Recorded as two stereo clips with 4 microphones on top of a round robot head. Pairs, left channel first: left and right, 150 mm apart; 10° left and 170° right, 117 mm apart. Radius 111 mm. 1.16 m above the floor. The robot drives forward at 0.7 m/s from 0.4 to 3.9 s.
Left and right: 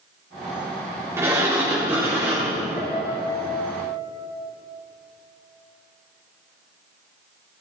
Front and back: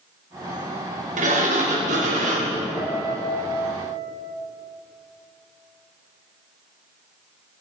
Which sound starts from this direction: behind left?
A piano, at 2.8 s.